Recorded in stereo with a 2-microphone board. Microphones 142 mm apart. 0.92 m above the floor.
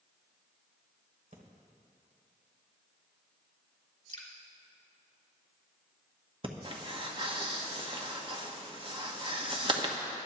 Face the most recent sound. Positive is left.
turn(degrees=-40)  # may be behind; listen again after turning